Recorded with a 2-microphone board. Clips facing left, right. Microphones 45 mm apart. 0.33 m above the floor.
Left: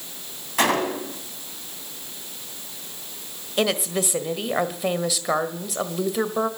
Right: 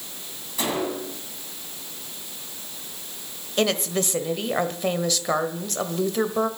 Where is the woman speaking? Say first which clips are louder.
Even; 5° left (ahead or behind), 1.3 m.